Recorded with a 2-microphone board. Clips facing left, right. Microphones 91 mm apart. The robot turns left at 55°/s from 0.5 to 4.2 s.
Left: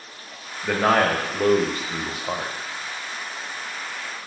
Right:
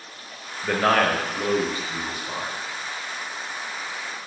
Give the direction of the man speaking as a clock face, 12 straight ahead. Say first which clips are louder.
Left 1 dB; 6 o'clock.